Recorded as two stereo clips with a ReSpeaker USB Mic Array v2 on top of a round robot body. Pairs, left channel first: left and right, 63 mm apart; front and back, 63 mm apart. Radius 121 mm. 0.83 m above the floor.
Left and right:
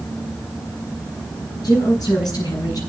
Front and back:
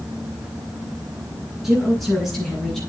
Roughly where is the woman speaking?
Left.